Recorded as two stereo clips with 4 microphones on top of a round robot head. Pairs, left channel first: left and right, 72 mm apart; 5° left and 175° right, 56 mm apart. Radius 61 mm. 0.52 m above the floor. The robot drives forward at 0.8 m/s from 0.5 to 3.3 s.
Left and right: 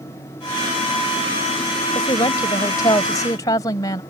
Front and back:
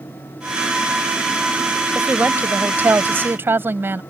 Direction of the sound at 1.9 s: 120° left.